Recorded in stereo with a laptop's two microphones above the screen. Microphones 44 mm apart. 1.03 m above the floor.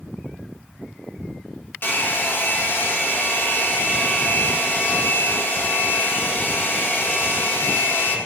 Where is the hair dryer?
60° left (ahead or behind), 1.6 m.